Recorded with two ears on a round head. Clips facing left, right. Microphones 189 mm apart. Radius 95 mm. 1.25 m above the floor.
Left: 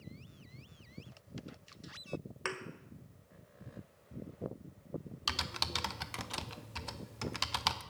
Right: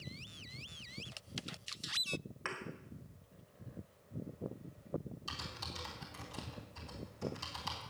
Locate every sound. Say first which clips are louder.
2.5 s a thud: left 8 dB; 50° left (ahead or behind), 1.6 m
5.3 s typing on a keyboard: left 5 dB; 80° left, 0.9 m